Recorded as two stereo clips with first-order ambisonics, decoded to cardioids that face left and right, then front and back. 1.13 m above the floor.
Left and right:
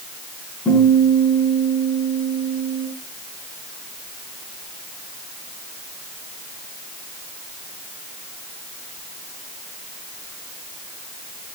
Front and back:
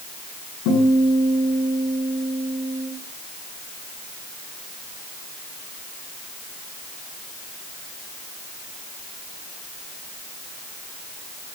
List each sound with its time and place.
0.7 s a guitar: 15° left, 8.5 m